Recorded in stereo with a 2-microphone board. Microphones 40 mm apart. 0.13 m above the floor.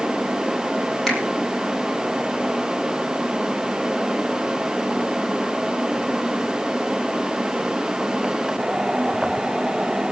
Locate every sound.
1.1 s a finger snap: centre (ahead or behind), 3.5 m